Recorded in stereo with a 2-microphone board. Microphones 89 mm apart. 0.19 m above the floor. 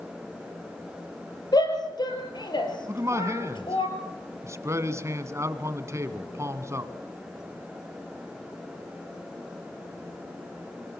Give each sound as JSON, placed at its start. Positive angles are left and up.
{"t": 1.5, "sound": "a shout", "side_deg": 50, "distance_m": 5.0}
{"t": 2.9, "sound": "a man speaking", "side_deg": -35, "distance_m": 1.3}